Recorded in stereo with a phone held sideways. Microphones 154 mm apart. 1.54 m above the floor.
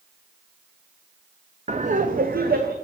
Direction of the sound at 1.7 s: 45° right (ahead or behind).